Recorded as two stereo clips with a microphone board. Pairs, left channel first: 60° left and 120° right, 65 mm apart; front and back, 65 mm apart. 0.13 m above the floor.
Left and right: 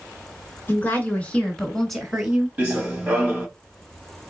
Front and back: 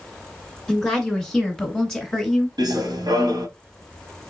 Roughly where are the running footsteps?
Behind.